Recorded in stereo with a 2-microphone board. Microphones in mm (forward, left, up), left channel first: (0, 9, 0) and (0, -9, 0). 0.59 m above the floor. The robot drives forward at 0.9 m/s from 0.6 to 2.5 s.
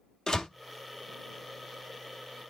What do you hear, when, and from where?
0.3 s a door slam: 40° left (ahead or behind), 0.7 m